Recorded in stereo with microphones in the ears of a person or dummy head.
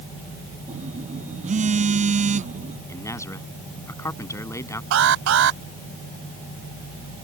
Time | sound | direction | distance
0.7 | a phone buzzing | 35° right (ahead or behind) | ?
2.9 | a man speaking | 15° left (ahead or behind) | ?
4.9 | an alarm | 70° right (ahead or behind) | ?